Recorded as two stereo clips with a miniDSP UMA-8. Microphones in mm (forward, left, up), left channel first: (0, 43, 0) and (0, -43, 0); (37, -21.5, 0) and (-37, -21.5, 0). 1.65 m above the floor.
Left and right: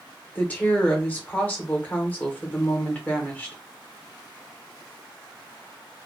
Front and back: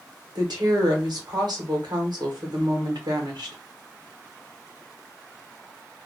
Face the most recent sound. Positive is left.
turn(degrees=160)